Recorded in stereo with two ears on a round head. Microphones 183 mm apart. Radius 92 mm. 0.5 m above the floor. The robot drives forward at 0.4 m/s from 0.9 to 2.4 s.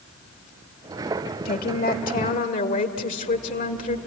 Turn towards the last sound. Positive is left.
turn(degrees=40)  # may be behind; listen again after turning